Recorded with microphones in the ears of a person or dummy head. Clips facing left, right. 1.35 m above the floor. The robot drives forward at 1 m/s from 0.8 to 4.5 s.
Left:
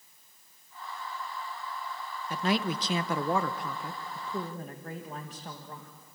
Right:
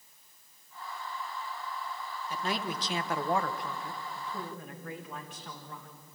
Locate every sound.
2.3 s a man speaking: 45° left (ahead or behind), 1.3 m; by 5.9 s 35° left (ahead or behind), 1.6 m